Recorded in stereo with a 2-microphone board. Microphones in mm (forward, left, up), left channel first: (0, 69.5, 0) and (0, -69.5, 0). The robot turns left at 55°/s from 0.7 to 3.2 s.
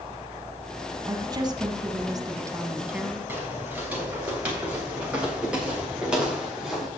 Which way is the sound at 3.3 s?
15° right (ahead or behind).